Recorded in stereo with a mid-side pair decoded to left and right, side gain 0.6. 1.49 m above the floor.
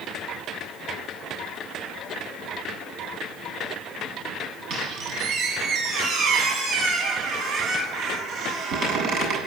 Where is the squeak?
60° right, 8 m.